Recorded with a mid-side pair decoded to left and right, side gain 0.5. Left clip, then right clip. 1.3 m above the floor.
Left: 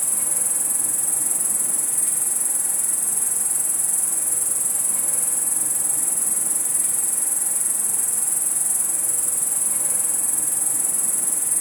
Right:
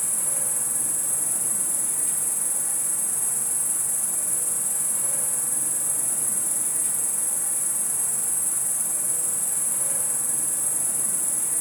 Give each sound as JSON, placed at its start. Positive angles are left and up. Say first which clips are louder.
{"t": 0.0, "sound": "an insect", "louder": "left 3 dB", "azimuth_deg": 60, "distance_m": 1.0}